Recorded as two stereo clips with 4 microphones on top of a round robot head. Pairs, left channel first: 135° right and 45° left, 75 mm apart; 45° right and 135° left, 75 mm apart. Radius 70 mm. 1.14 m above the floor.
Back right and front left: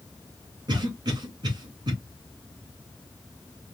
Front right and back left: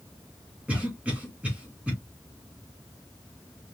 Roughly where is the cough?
Ahead left.